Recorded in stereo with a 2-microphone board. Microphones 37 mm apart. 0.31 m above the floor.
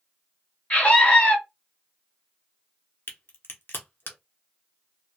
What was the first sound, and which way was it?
A scream, 35° left (ahead or behind).